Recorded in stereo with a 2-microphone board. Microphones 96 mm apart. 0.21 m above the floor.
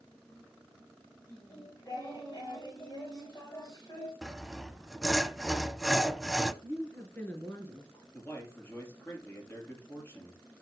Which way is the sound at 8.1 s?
25° left (ahead or behind).